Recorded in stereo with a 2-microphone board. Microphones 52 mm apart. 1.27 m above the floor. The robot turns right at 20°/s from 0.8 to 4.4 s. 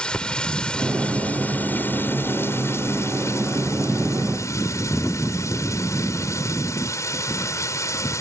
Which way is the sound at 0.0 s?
15° left.